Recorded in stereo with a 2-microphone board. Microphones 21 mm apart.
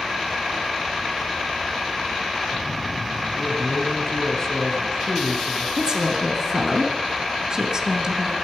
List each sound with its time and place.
3.4 s a man speaking: 25° left (ahead or behind), 2.5 m
5.8 s a woman speaking: 35° right (ahead or behind), 2 m